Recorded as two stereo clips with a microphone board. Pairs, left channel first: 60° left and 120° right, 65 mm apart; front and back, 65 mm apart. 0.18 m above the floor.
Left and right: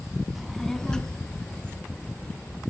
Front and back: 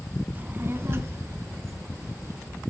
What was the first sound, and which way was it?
A child speaking, 160° left.